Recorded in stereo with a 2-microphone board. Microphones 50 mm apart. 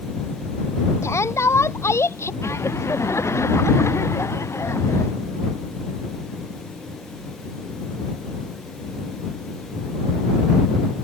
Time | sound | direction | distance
1.0 | a shout | 75° left (ahead or behind) | ?
2.4 | laughter | 75° left (ahead or behind) | ?